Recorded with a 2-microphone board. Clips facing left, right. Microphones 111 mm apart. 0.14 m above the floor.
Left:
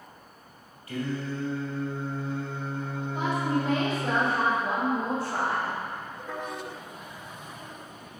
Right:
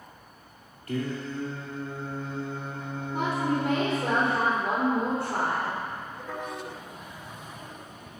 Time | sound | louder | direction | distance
0.9 | singing | even | 50° right (ahead or behind) | 3.5 m
3.1 | a woman speaking | right 1 dB | 55° right (ahead or behind) | 3.5 m